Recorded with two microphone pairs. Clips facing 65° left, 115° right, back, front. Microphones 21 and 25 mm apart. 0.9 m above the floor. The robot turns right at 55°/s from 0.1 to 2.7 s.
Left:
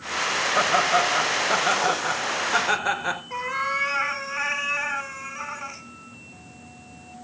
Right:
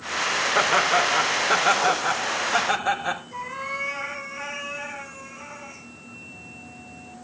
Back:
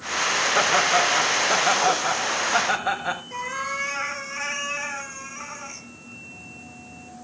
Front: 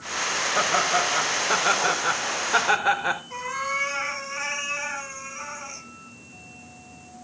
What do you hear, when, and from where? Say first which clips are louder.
0.6 s laughter: even, back 2 dB; 115° right, 4 m; by 3.2 s straight ahead, 4 m
3.3 s a cat meowing: left 5 dB, even; 75° left, 3.5 m